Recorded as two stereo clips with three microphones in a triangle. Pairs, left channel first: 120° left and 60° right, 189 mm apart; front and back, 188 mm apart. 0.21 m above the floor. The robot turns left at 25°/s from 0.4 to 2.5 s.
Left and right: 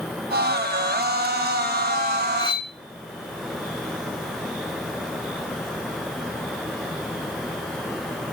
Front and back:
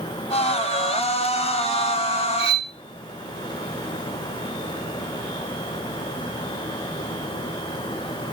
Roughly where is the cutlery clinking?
Behind.